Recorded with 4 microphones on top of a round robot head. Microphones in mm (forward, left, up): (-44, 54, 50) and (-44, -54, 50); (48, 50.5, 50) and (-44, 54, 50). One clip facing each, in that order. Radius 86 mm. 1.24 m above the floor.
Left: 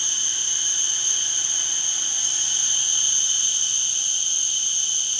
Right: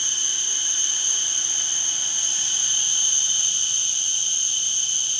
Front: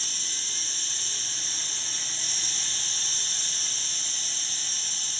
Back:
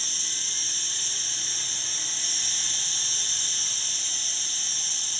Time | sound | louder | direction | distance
0.0 | an insect | even, even | 160° left | 1.3 m